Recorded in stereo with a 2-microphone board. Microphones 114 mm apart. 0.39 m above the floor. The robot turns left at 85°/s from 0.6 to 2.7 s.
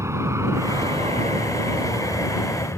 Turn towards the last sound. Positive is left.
turn(degrees=20)  # may be behind; listen again after turning